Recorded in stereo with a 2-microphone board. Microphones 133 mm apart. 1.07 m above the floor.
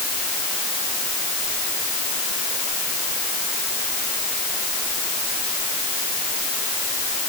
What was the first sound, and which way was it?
Only background noise.